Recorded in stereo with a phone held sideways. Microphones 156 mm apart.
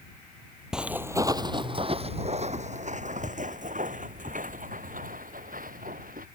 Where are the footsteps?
5° right (ahead or behind); by 6.2 s 65° right (ahead or behind).